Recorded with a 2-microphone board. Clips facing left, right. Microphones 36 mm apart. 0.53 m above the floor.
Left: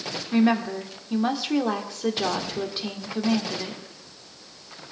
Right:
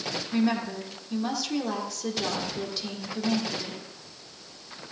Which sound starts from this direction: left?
A woman speaking, at 0.3 s.